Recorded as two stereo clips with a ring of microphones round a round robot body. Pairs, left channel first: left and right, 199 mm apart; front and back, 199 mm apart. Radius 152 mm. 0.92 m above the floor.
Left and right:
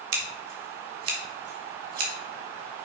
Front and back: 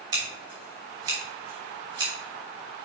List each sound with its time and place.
0.1 s scissors: 105° right, 1.5 m